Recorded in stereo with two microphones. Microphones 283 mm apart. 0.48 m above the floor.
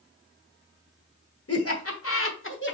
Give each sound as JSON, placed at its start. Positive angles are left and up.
{"t": 1.5, "sound": "laughter", "side_deg": 55, "distance_m": 1.1}